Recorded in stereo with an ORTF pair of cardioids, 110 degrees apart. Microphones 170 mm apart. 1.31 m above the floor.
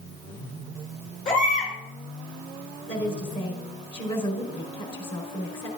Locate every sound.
1.2 s a baby crying: 50° left, 7 m
2.9 s a woman speaking: 30° left, 5 m